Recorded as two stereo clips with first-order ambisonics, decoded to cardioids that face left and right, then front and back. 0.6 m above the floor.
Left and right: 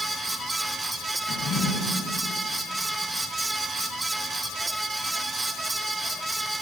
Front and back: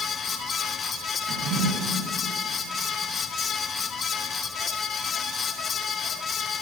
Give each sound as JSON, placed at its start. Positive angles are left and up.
{"t": 1.3, "sound": "a drawer", "azimuth_deg": 145, "distance_m": 1.3}